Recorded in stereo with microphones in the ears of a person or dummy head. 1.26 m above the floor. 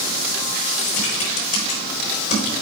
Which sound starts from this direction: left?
Typing on a keyboard, at 0.8 s.